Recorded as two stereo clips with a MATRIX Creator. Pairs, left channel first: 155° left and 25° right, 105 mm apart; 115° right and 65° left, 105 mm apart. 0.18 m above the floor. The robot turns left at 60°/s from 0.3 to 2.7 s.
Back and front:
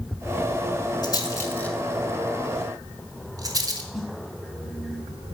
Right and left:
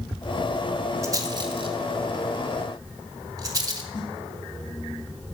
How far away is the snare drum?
About 2.5 m.